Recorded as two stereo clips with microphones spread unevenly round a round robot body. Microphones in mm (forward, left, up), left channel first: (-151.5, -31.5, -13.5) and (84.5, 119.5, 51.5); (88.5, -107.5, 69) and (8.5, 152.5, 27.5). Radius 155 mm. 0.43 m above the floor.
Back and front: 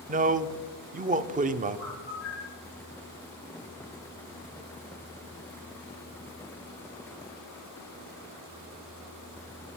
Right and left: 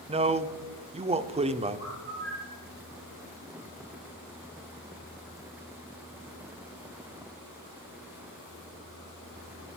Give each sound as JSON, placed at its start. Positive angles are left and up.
{"t": 0.1, "sound": "a man speaking", "azimuth_deg": 95, "distance_m": 0.8}
{"t": 1.8, "sound": "a bird", "azimuth_deg": 170, "distance_m": 2.5}